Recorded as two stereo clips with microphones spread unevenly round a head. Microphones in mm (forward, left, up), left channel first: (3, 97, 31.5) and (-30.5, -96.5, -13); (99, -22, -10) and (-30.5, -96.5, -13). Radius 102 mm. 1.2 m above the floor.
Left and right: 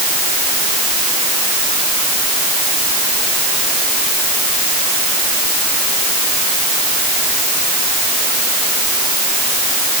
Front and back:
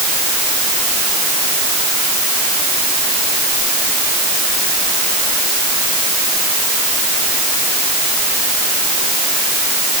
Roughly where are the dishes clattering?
I don't hear dishes clattering.